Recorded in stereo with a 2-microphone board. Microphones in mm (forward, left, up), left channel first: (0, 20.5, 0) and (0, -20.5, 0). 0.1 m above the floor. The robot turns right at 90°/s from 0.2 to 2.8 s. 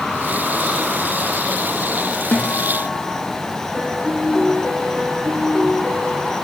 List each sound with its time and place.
2.3 s a guitar: 60° left, 2.5 m; by 3.3 s 105° left, 2.5 m
3.7 s a piano: 10° right (ahead or behind), 5 m